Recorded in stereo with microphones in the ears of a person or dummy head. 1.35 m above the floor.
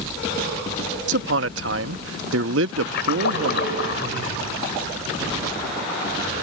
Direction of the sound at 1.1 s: 75° right (ahead or behind).